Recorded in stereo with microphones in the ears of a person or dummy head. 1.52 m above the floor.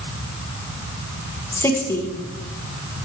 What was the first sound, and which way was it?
A woman speaking, 15° left (ahead or behind).